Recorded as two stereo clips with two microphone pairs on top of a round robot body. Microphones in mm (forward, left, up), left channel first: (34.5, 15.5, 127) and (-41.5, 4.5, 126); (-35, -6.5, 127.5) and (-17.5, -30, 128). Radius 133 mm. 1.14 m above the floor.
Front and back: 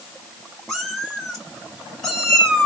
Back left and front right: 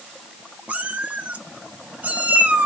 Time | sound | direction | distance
0.7 | a cat meowing | 80° right | 1.2 m